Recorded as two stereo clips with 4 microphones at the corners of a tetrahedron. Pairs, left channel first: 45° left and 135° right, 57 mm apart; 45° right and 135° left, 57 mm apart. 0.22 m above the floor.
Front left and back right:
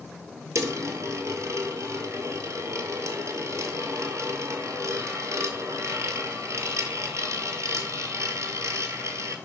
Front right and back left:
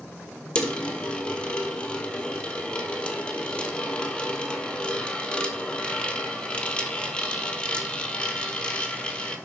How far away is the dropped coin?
About 1.0 m.